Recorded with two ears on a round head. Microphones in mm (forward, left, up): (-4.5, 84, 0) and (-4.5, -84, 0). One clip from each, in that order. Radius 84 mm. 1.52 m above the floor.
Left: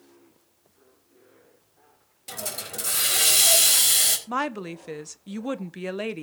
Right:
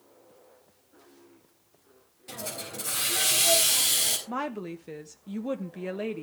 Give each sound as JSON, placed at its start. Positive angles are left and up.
{"t": 2.3, "sound": "a hiss", "side_deg": 35, "distance_m": 4.0}
{"t": 4.3, "sound": "a woman speaking", "side_deg": 35, "distance_m": 0.9}